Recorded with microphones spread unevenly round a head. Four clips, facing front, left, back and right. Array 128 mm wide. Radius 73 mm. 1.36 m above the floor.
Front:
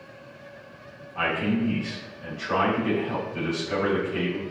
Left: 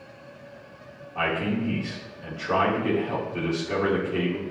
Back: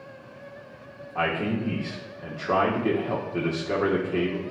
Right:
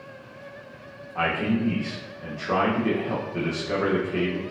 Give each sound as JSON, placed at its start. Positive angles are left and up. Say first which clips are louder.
{"t": 1.1, "sound": "a man speaking", "louder": "right 2 dB, front 1 dB", "azimuth_deg": -175, "distance_m": 1.5}